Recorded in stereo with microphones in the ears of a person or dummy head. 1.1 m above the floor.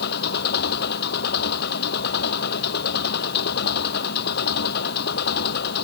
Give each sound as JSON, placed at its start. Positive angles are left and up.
{"t": 0.0, "sound": "an engine running", "side_deg": 60}